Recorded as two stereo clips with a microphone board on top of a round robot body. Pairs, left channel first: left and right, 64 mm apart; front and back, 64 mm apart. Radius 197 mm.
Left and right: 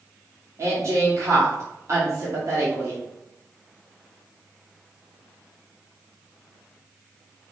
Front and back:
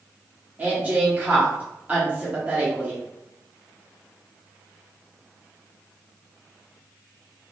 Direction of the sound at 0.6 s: 115° right.